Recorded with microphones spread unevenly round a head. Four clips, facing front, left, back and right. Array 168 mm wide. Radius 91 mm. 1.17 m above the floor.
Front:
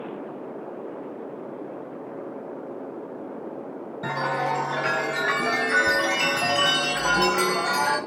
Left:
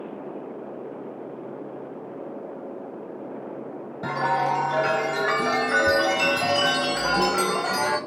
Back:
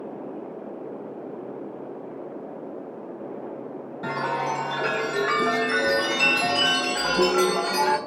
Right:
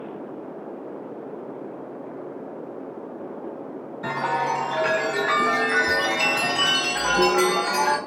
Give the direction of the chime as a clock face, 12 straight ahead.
9 o'clock.